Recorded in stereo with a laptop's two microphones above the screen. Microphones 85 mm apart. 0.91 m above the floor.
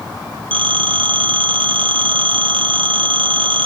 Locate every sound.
0.5 s a phone ringing: 80° right, 0.9 m